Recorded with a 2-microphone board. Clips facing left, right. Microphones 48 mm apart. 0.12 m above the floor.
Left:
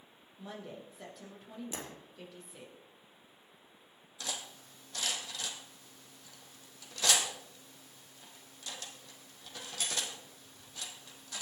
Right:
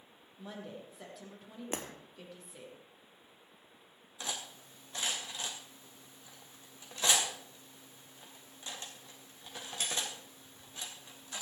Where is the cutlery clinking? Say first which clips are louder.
Right 1 dB; 25° right (ahead or behind), 3 m.